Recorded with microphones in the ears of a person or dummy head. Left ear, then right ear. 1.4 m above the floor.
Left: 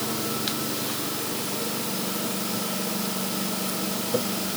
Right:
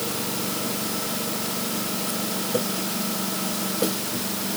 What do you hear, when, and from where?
Only background noise.